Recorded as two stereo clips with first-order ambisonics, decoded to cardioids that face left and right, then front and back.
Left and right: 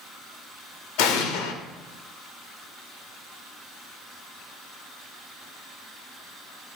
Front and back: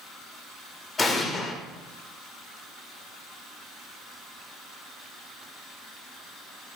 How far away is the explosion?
About 1.3 m.